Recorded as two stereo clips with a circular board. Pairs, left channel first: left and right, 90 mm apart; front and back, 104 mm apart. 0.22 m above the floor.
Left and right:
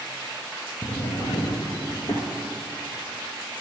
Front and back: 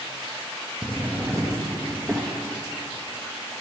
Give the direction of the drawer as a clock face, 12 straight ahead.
8 o'clock.